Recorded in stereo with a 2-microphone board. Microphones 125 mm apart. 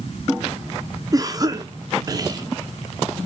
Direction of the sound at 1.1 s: 30° right (ahead or behind).